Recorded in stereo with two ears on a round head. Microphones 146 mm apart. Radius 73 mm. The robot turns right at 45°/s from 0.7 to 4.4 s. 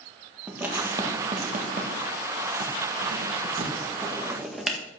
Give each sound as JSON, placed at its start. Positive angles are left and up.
{"t": 0.5, "sound": "writing", "side_deg": -10, "distance_m": 1.6}